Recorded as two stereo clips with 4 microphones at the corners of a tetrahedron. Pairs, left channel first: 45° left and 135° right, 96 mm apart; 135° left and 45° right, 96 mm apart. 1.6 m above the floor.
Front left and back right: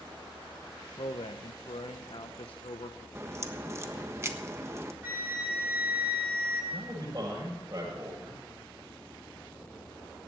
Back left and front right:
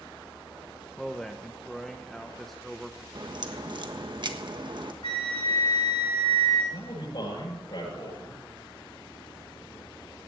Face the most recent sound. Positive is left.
turn(degrees=170)